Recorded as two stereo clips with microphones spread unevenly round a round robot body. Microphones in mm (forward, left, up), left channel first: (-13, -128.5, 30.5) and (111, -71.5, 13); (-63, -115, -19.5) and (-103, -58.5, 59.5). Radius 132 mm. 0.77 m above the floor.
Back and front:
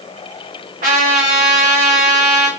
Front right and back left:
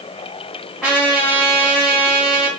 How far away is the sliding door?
I don't hear a sliding door.